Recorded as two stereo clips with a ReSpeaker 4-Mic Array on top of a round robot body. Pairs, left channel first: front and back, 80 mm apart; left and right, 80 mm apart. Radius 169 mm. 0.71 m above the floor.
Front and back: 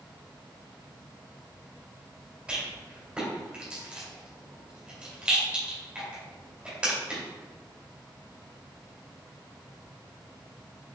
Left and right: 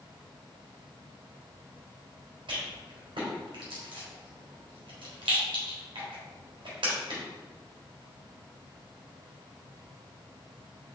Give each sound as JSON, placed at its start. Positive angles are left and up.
{"t": 2.5, "sound": "a rattle", "azimuth_deg": -105, "distance_m": 2.5}